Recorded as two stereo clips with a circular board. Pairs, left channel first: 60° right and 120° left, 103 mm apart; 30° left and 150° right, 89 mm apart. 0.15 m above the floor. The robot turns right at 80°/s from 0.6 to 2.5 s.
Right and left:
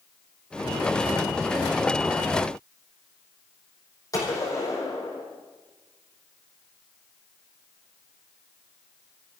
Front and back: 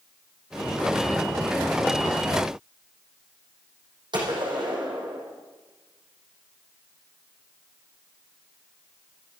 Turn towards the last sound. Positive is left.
turn(degrees=-120)